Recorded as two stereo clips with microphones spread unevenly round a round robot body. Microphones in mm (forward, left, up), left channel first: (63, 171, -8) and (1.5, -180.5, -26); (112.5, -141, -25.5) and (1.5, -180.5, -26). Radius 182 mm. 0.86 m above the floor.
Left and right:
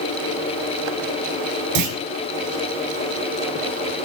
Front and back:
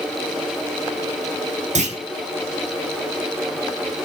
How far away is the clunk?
About 1.7 m.